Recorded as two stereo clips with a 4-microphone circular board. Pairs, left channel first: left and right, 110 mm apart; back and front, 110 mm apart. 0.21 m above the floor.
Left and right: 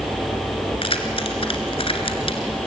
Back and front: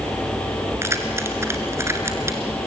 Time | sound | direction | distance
0.8 | keys jangling | 65° left | 2.5 m